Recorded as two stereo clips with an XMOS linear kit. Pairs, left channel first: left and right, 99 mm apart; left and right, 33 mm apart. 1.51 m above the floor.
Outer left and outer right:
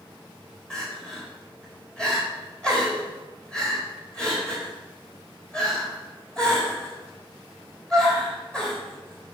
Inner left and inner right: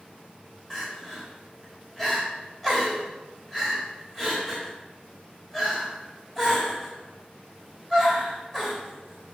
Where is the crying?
10° left (ahead or behind), 4 m.